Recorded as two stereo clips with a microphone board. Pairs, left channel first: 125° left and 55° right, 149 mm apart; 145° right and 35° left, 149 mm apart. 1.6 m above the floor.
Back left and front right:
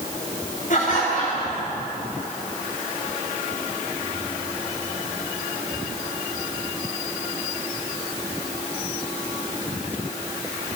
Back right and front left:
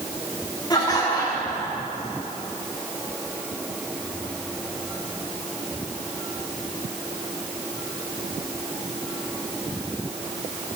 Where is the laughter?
155° left, 5 m.